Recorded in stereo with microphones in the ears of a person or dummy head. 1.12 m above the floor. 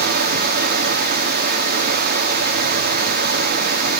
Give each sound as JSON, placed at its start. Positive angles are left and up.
{"t": 0.0, "sound": "running water", "side_deg": -60, "distance_m": 1.6}